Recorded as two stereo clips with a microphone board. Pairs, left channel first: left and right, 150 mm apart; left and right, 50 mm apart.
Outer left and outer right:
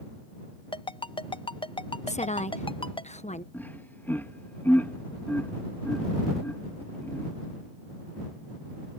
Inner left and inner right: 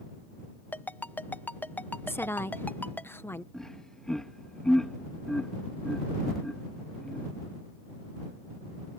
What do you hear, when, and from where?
0.7 s a ringtone: 35° left (ahead or behind)
2.1 s a woman speaking: 50° left (ahead or behind)
3.5 s laughter: 10° left (ahead or behind)